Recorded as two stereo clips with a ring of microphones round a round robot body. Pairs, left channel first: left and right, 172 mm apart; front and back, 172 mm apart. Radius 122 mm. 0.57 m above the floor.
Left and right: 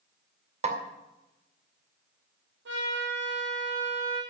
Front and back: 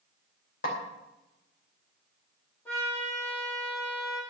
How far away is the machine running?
No machine running in this recording.